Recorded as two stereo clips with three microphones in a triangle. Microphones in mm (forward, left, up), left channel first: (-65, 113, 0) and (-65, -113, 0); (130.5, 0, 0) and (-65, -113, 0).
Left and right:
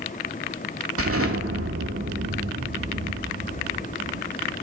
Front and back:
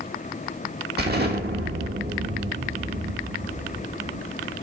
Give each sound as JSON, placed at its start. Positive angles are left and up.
{"t": 1.0, "sound": "an explosion", "azimuth_deg": -105, "distance_m": 1.1}